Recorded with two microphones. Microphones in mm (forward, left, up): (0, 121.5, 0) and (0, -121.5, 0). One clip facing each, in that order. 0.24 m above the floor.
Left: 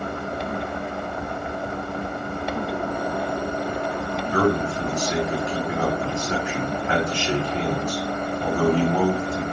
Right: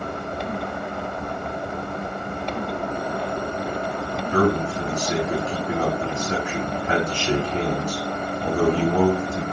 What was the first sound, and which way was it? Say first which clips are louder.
A man speaking: right 1 dB; 35° right (ahead or behind).